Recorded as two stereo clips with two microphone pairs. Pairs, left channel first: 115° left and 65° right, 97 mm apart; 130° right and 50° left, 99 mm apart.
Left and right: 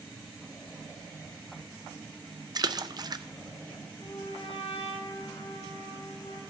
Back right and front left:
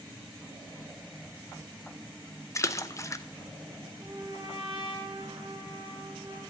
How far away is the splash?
About 0.5 m.